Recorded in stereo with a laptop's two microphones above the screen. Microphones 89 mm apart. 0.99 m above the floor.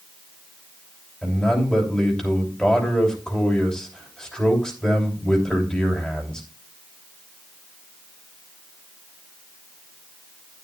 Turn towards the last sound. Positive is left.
turn(degrees=10)  # may be behind; listen again after turning